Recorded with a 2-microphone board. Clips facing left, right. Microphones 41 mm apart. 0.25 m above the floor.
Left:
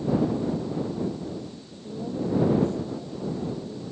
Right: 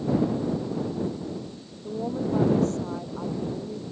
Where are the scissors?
No scissors in this recording.